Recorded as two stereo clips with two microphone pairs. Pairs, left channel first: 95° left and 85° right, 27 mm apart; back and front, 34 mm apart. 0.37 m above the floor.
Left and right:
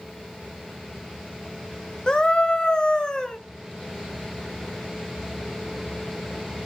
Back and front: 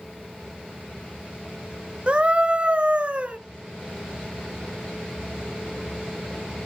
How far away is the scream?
About 1.4 m.